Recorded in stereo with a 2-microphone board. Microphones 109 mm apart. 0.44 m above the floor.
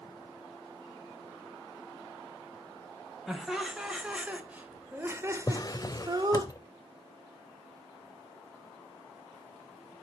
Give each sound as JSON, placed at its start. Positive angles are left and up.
{"t": 3.3, "sound": "laughter", "side_deg": 0, "distance_m": 2.5}
{"t": 5.5, "sound": "a drawer", "side_deg": 35, "distance_m": 0.6}